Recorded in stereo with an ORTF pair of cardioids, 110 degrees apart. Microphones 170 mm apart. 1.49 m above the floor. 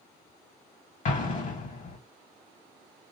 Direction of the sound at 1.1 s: 50° left.